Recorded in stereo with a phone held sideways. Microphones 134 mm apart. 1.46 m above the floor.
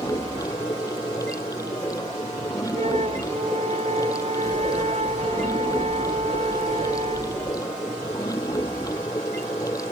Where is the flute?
60° right (ahead or behind).